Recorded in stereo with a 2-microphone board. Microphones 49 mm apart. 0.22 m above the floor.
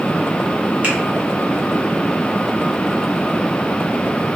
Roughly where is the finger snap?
Right.